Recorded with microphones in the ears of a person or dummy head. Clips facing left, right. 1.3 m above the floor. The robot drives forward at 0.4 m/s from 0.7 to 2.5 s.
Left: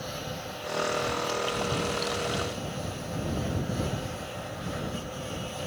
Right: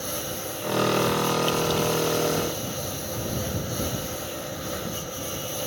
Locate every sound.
0.0 s a lawn mower: 60° right (ahead or behind)